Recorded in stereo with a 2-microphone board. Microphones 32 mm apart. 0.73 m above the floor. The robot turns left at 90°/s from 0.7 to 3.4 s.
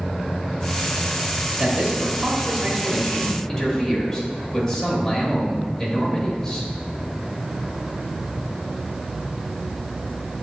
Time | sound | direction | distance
1.6 | a man speaking | 30° right | 1.3 m